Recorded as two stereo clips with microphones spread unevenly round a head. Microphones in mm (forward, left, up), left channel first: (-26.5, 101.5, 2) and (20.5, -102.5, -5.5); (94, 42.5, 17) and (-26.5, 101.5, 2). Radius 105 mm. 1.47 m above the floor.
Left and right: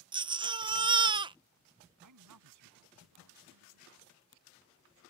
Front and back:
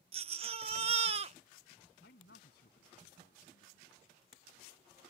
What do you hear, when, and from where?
0.1 s a baby crying: 145° right
2.0 s a man speaking: 65° right